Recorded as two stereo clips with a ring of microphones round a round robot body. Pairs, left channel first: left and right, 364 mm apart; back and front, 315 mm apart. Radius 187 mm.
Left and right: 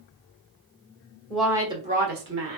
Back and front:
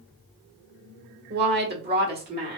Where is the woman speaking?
5° left, 0.9 m; by 2.6 s 55° right, 1.2 m.